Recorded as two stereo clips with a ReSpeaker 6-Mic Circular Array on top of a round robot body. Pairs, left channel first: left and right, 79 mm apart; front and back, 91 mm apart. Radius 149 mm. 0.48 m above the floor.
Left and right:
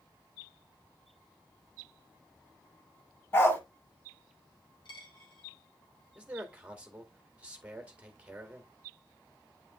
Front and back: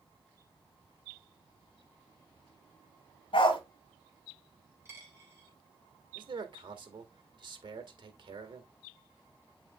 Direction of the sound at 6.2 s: 165° right.